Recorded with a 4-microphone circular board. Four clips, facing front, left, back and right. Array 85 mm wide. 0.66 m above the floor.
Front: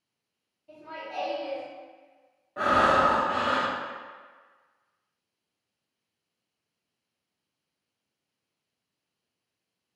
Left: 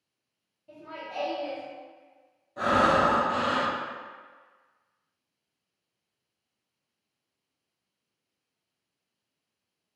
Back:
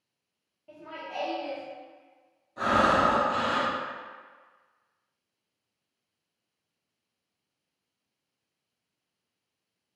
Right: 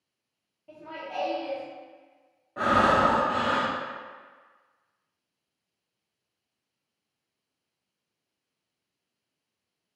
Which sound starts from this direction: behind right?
Laughter, at 0.7 s.